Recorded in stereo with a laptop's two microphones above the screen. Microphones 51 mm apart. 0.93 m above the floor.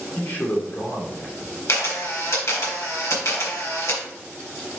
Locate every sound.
0.1 s a man speaking: 40° left (ahead or behind), 2.0 m
1.7 s a camera shutter: 75° left (ahead or behind), 3.5 m